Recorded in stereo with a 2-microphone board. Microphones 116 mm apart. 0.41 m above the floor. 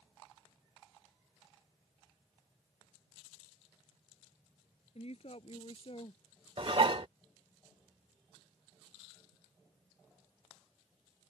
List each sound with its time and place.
5.0 s a woman speaking: 60° left (ahead or behind); by 6.2 s 50° left (ahead or behind)
6.6 s dishes clattering: 50° right (ahead or behind)